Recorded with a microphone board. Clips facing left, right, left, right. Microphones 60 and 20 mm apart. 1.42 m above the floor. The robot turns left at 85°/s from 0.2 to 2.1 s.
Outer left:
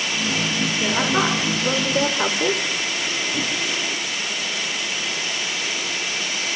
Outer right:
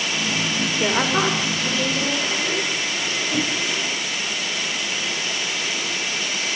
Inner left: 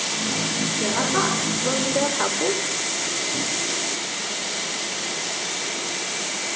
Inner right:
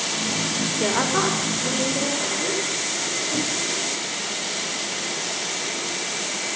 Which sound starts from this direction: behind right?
A woman speaking, at 0.8 s.